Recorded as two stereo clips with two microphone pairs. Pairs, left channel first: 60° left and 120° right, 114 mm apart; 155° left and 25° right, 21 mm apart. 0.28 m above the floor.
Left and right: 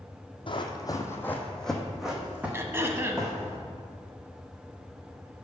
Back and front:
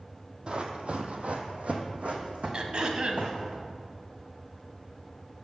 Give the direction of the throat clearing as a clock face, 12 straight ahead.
2 o'clock.